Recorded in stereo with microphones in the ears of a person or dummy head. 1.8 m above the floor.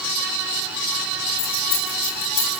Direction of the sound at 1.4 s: 35° left (ahead or behind).